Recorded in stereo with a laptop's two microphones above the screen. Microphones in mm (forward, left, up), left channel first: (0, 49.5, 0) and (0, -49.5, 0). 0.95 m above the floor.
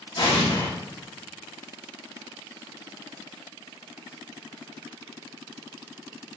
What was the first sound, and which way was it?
An explosion, 55° left (ahead or behind).